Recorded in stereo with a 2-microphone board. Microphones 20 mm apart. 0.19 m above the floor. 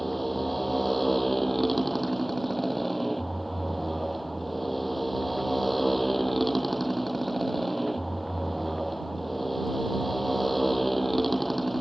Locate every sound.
0.0 s a motorcycle: 5° left (ahead or behind)